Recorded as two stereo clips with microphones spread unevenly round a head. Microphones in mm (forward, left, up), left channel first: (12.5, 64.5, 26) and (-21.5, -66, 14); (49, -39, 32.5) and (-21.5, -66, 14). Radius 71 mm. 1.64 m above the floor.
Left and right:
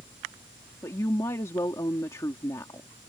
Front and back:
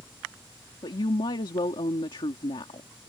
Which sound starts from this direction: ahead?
A woman speaking, at 0.8 s.